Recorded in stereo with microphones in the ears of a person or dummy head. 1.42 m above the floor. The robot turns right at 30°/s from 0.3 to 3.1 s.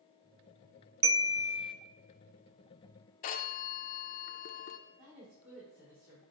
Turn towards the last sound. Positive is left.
turn(degrees=-60)  # may be behind; listen again after turning